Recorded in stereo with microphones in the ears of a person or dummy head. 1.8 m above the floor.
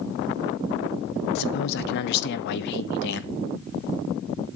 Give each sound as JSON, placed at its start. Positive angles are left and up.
{"t": 1.4, "sound": "a man speaking", "side_deg": 65, "distance_m": 1.0}